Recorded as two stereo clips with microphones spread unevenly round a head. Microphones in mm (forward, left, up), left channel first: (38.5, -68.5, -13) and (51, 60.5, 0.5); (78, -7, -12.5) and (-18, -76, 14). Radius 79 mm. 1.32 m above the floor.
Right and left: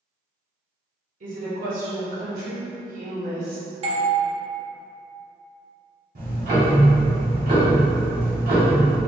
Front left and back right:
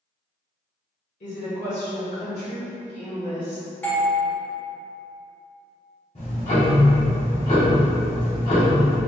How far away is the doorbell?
About 0.6 m.